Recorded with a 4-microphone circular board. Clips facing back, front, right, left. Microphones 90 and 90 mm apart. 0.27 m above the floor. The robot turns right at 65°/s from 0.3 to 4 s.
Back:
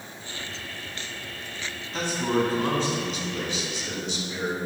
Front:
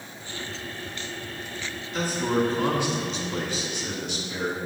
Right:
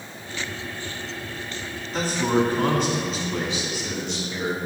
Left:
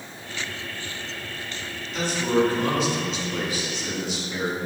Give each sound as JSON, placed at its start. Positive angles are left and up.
{"t": 1.9, "sound": "a man speaking", "azimuth_deg": -130, "distance_m": 2.0}